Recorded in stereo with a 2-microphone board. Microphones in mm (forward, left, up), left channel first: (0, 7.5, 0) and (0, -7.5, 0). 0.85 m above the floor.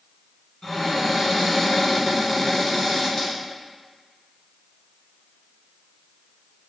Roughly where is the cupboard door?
Left.